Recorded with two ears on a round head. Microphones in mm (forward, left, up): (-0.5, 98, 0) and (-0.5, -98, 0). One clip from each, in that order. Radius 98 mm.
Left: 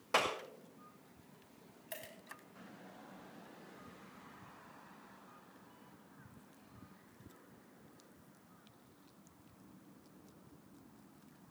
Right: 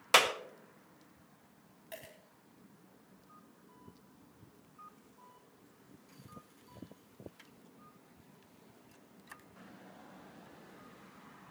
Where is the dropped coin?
20° left (ahead or behind), 3 m.